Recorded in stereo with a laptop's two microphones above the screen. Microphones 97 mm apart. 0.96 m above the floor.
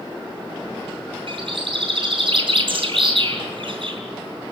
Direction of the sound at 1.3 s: 60° right (ahead or behind).